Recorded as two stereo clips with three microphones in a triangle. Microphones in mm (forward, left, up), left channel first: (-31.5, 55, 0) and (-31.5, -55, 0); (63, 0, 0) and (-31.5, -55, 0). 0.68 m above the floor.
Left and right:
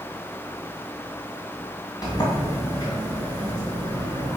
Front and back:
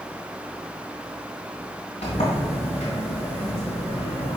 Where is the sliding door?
40° left, 2.5 m.